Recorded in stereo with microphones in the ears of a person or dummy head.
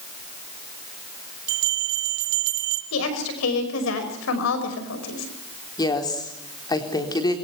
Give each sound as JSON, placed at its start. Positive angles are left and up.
{"t": 1.5, "sound": "a bell", "side_deg": -60, "distance_m": 4.0}
{"t": 2.9, "sound": "a woman speaking", "side_deg": 65, "distance_m": 5.5}
{"t": 5.8, "sound": "a woman speaking", "side_deg": 15, "distance_m": 3.5}